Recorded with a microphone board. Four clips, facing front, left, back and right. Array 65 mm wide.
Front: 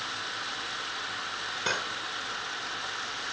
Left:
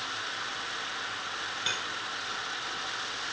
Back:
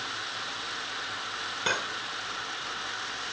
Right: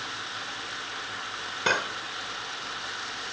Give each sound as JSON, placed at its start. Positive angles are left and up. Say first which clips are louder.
{"t": 1.7, "sound": "cutlery clinking", "louder": "right 12 dB, back 2 dB", "azimuth_deg": -95}